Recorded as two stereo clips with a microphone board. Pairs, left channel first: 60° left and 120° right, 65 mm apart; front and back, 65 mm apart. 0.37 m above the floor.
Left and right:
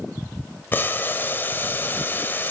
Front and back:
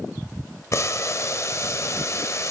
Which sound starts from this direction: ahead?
Boiling, at 0.7 s.